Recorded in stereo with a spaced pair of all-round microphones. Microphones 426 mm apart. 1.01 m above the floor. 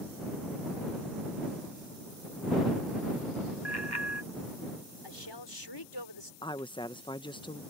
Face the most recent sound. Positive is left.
turn(degrees=10)  # may be behind; listen again after turning